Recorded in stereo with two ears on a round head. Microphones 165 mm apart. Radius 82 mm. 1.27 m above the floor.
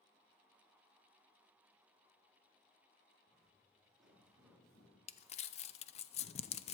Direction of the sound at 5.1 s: 35° left (ahead or behind).